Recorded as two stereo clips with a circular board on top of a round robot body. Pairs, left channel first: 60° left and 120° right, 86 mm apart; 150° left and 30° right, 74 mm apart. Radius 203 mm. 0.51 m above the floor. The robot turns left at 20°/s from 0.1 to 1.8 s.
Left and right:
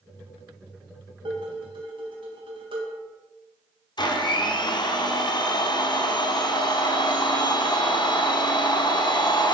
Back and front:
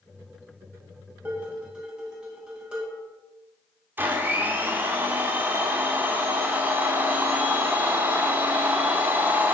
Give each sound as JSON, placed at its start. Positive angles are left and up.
{"t": 1.2, "sound": "dishes clattering", "azimuth_deg": -95, "distance_m": 3.0}
{"t": 4.0, "sound": "a blender", "azimuth_deg": 35, "distance_m": 1.5}